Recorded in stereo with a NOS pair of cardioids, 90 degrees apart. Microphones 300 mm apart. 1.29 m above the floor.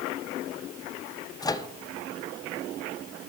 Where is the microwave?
15° left, 0.6 m.